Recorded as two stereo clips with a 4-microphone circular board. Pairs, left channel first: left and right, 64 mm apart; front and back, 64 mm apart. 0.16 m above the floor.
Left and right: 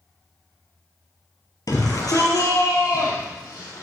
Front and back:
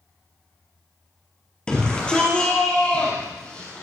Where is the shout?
75° left, 3 m; by 3.8 s 70° left, 5.5 m.